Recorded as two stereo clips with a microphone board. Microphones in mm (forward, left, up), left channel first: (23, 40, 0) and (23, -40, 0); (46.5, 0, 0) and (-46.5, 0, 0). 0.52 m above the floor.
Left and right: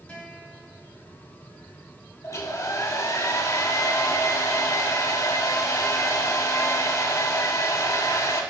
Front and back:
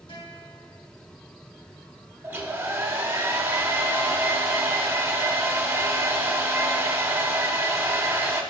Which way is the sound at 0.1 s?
15° left.